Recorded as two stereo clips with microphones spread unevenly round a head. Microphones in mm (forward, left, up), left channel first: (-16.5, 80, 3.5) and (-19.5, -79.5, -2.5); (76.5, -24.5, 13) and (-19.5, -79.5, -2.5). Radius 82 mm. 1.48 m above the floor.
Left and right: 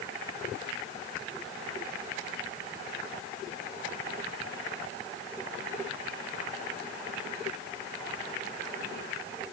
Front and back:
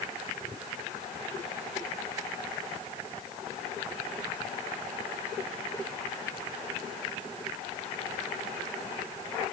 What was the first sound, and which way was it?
Only background noise.